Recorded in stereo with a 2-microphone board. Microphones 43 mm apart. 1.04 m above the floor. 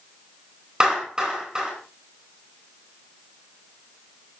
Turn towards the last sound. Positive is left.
turn(degrees=-15)  # may be behind; listen again after turning